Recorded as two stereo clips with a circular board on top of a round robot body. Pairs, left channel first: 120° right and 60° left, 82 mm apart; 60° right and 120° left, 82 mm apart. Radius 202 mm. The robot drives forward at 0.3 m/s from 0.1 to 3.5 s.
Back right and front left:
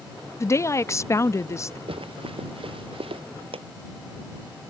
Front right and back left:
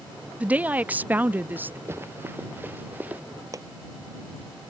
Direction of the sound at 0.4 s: 170° right.